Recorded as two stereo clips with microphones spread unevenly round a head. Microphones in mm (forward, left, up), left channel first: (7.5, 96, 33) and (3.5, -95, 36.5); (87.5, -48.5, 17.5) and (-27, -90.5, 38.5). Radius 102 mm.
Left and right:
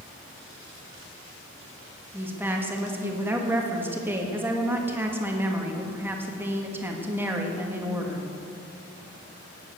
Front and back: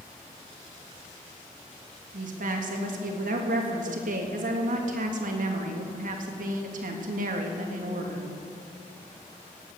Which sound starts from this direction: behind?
A woman speaking, at 2.1 s.